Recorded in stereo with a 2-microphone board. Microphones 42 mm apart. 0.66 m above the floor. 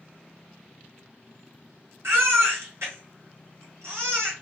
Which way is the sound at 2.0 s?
85° right.